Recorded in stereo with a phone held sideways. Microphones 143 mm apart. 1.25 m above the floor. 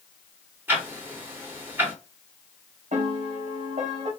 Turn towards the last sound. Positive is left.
turn(degrees=-55)  # may be behind; listen again after turning